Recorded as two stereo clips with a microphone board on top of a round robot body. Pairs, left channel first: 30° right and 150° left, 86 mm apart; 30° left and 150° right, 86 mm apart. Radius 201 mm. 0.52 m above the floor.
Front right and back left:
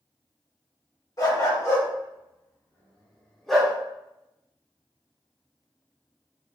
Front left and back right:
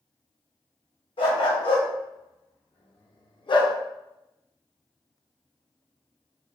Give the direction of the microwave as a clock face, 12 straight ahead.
No microwave in this recording.